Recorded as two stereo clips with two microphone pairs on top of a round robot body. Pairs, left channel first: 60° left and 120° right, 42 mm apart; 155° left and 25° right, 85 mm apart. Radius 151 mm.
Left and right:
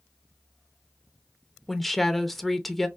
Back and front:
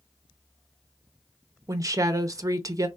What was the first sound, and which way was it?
A woman speaking, 30° right.